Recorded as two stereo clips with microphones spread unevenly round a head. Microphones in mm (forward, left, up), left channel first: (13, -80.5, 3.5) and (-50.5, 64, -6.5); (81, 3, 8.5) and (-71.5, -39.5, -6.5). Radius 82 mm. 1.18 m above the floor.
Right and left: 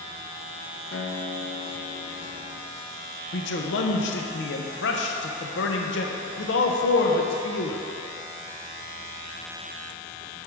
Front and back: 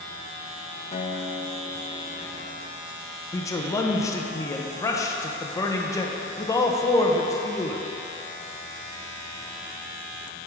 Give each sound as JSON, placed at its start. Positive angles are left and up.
{"t": 0.9, "sound": "a guitar", "azimuth_deg": -40, "distance_m": 0.6}
{"t": 3.3, "sound": "a man speaking", "azimuth_deg": -55, "distance_m": 0.7}